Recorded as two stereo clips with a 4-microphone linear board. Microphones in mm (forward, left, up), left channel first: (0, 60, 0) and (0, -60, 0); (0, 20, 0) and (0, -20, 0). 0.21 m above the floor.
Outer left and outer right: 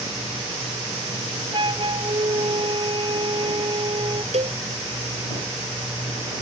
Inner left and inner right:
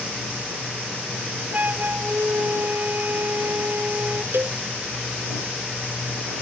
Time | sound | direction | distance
1.5 | a flute | 40° right (ahead or behind) | ?
4.3 | a cowbell | 60° right (ahead or behind) | ?